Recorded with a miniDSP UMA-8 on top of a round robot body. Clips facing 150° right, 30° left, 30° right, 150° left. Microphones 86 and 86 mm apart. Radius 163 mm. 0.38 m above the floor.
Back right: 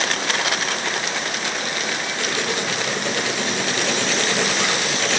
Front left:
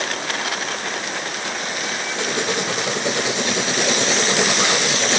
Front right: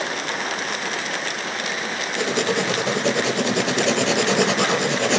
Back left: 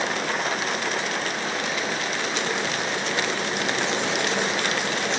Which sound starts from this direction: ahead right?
Writing, at 2.2 s.